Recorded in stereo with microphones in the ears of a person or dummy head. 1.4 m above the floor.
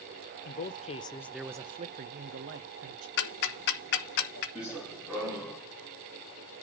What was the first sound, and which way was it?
A man speaking, 50° left (ahead or behind).